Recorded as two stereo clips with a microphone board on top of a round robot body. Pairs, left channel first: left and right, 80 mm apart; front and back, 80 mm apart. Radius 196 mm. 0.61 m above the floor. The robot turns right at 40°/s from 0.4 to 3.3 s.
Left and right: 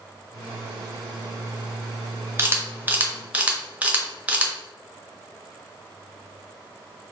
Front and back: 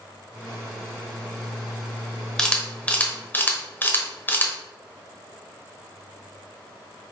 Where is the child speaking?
No child speaking in this recording.